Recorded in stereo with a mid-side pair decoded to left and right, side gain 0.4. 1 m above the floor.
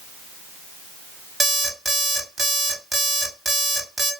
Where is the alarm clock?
40° right, 1.0 m.